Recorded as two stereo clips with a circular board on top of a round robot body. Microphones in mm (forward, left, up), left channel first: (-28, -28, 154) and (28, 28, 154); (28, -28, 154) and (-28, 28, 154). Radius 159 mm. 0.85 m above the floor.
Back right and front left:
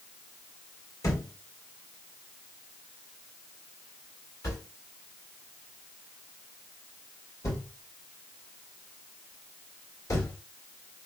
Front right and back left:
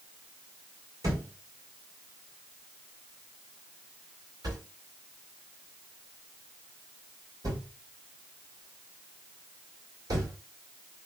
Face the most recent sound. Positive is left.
turn(degrees=175)